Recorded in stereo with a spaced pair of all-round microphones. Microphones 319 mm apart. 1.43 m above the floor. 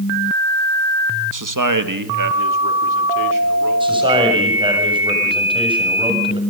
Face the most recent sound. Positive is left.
turn(degrees=-15)  # may be behind; listen again after turning